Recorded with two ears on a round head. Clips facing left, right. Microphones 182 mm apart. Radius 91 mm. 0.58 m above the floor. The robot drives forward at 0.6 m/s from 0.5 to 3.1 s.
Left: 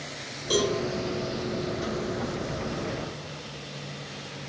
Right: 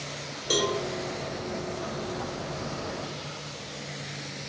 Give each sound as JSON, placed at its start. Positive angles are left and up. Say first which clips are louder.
{"t": 0.5, "sound": "a cowbell", "louder": "left 2 dB", "side_deg": -25, "distance_m": 1.4}